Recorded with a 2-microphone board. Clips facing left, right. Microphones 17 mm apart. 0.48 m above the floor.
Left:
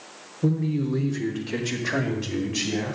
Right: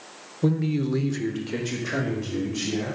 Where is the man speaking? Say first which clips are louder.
Right 1 dB; 60° right (ahead or behind), 1.2 m; by 3.0 s 40° left (ahead or behind), 3 m.